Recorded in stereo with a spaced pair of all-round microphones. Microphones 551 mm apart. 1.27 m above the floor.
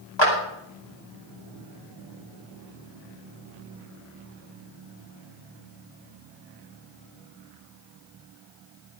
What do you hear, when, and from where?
0.2 s a clap: 50° left (ahead or behind), 5 m